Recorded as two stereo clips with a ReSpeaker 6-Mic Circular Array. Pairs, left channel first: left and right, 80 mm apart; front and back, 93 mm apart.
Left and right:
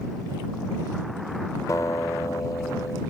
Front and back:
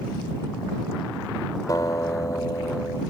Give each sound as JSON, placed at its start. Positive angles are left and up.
{"t": 1.7, "sound": "a guitar", "azimuth_deg": 45}